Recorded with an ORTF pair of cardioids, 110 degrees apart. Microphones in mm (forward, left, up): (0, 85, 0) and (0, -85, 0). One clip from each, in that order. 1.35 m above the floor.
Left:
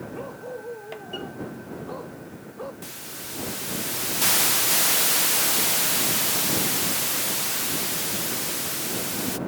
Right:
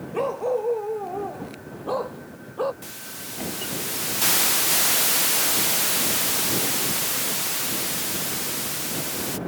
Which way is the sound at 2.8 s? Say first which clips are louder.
Even; 5° right.